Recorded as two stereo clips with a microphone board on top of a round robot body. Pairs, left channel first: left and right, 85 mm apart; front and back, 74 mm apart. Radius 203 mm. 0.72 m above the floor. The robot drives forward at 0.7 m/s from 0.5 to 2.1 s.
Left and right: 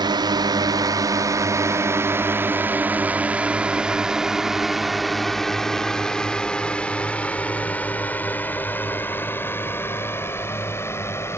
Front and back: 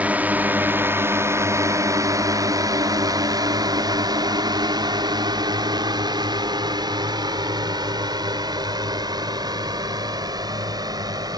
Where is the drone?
115° right; by 11.4 s 150° left.